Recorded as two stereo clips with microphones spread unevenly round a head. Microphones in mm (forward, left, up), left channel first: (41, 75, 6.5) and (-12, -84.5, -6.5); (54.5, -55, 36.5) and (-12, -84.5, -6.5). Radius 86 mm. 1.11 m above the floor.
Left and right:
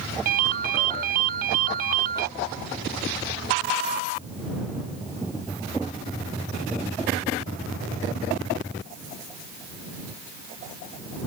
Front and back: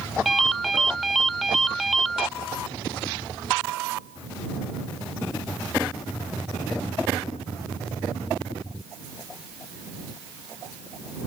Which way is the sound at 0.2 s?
70° right.